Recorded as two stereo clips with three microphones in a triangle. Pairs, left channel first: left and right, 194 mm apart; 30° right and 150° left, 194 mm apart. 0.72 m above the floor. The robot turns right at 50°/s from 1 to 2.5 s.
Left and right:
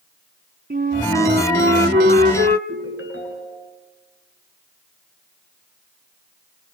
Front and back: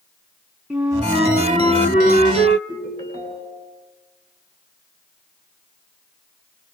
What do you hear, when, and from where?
0.7 s a flute: 125° right, 2 m; by 2.6 s 50° right, 2 m
2.7 s a ringtone: 90° left, 4.5 m